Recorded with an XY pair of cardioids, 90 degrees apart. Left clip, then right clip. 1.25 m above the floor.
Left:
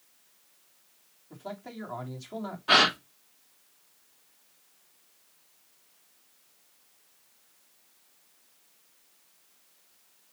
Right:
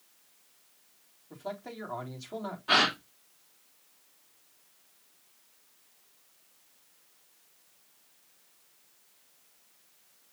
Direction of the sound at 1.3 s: 5° right.